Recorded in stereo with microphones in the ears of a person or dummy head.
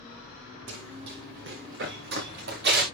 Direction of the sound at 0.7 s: 70° right (ahead or behind).